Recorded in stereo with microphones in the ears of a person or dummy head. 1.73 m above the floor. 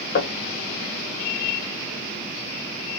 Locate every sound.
0.1 s knocking: 60° left (ahead or behind), 0.9 m